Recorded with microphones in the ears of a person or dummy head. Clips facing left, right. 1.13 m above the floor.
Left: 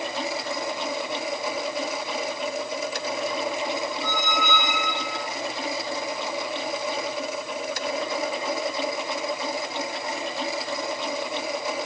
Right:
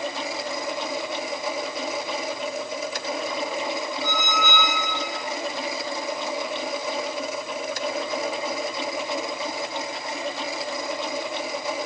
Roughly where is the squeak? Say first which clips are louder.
Even; right.